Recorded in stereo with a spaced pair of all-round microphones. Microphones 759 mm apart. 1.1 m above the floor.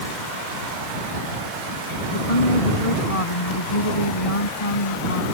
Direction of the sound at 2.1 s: 45° left (ahead or behind).